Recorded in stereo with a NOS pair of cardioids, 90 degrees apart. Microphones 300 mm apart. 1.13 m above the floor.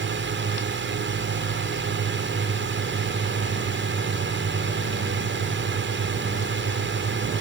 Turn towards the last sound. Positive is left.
turn(degrees=-40)